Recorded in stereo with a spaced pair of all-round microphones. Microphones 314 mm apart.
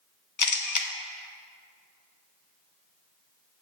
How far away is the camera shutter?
About 0.6 m.